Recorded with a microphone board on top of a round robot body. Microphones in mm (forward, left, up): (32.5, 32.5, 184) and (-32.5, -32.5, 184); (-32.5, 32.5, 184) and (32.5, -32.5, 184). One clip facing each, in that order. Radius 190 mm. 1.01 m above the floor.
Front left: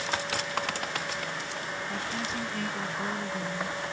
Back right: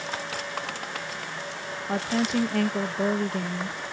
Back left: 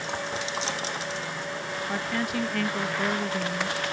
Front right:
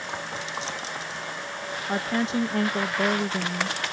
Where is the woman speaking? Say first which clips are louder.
Back right 12 dB, front right 5 dB; 110° right.